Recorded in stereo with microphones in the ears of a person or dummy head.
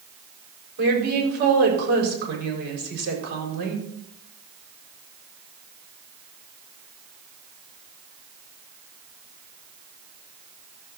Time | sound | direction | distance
0.8 | a woman speaking | 55° right (ahead or behind) | 5 m